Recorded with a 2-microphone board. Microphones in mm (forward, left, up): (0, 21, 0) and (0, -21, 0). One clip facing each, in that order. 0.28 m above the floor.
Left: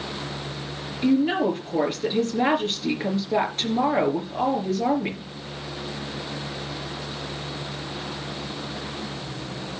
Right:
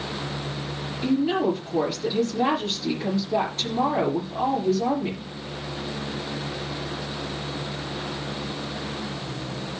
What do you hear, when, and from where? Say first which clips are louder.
1.0 s a woman speaking: left 2 dB; 35° left (ahead or behind), 4 m